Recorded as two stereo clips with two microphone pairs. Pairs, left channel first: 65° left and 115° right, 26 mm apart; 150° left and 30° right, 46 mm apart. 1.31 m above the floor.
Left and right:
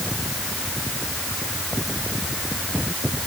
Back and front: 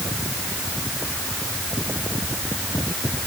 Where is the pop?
I don't hear a pop.